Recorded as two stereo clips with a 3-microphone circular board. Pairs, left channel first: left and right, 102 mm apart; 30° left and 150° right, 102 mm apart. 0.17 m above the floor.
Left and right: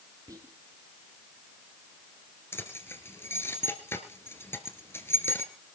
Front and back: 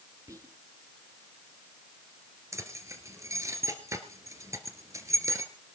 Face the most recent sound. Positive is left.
turn(degrees=155)